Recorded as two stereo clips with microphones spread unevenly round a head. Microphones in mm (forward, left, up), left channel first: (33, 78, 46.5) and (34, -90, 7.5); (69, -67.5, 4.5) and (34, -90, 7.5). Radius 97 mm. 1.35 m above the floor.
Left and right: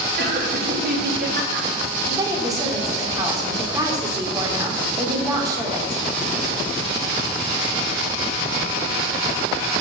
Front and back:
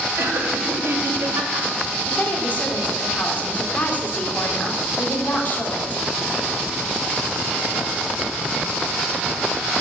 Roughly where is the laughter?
Behind right.